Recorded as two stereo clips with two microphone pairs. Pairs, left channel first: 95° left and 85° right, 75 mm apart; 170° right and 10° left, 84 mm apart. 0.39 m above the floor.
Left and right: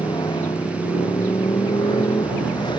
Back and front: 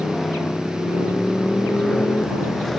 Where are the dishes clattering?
No dishes clattering in this recording.